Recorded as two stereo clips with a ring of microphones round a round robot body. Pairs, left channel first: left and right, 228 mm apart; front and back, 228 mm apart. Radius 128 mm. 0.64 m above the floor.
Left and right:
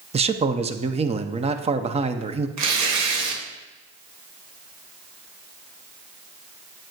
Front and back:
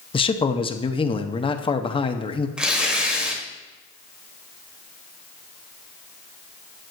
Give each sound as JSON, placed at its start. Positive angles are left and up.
{"t": 0.1, "sound": "a man speaking", "azimuth_deg": -50, "distance_m": 0.7}
{"t": 2.6, "sound": "tearing paper", "azimuth_deg": -95, "distance_m": 1.4}